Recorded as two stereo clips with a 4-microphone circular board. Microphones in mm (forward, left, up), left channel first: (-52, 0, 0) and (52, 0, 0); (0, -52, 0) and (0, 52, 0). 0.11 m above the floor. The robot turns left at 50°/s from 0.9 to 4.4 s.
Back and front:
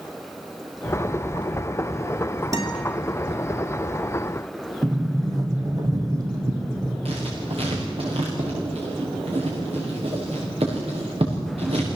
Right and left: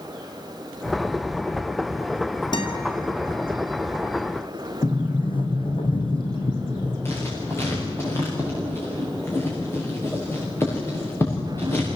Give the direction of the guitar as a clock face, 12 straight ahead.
2 o'clock.